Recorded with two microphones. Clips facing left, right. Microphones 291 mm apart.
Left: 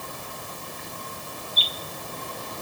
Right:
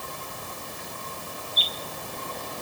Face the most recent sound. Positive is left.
No sound to turn to.